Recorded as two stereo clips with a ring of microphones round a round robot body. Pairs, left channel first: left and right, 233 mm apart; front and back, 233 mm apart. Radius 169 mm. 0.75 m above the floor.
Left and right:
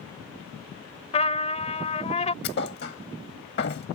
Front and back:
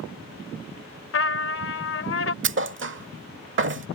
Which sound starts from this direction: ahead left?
A trumpet, at 1.1 s.